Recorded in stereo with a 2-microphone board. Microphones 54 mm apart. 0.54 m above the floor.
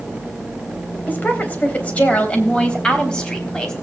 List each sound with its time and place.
1.1 s a woman speaking: 35° left (ahead or behind), 3 m; by 3.7 s 15° left (ahead or behind), 3.5 m